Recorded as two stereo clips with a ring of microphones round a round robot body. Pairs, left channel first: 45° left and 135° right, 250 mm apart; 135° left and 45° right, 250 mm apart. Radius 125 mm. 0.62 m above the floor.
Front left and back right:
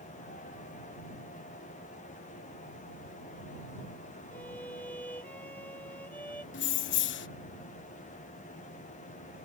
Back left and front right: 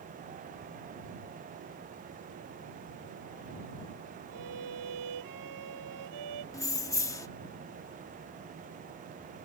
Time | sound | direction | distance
4.3 | a violin | 40° right | ?
6.5 | keys jangling | 60° left | ?